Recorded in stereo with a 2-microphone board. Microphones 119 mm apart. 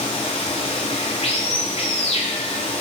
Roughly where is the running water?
Left.